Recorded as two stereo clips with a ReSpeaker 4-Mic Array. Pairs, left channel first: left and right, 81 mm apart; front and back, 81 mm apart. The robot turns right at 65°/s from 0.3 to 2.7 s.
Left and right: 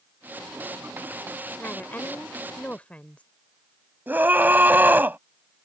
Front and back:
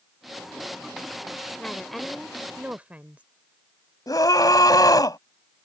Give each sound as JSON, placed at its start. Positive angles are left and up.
{"t": 1.6, "sound": "a woman speaking", "azimuth_deg": 60}
{"t": 4.1, "sound": "a scream", "azimuth_deg": -25}